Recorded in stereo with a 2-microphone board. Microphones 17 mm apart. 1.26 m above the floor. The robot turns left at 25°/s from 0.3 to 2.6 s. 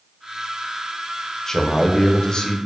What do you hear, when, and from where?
1.5 s a man speaking: 25° left (ahead or behind), 0.6 m; by 2.6 s 50° left (ahead or behind), 0.6 m